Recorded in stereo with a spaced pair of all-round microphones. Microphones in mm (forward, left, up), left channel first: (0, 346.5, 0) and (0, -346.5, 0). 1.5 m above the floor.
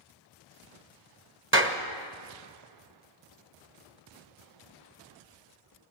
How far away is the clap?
About 1.6 m.